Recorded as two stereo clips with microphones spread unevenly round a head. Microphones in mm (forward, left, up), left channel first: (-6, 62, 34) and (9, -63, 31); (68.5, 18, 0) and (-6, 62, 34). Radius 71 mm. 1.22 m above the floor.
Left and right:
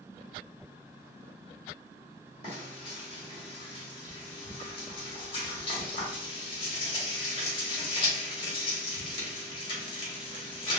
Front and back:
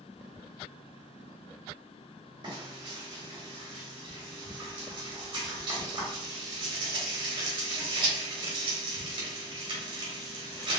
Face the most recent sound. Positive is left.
turn(degrees=145)